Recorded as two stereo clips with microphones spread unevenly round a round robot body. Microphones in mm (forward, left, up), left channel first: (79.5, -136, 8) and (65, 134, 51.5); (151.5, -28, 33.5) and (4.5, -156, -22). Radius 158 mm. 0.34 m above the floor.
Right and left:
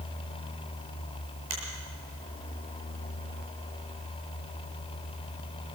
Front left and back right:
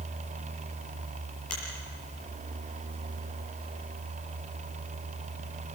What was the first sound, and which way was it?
A finger snap, 70° left.